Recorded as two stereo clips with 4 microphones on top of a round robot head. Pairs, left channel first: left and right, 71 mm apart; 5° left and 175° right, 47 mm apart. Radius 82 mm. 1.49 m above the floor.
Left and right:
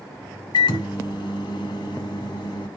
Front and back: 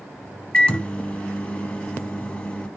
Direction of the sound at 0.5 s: 75° left.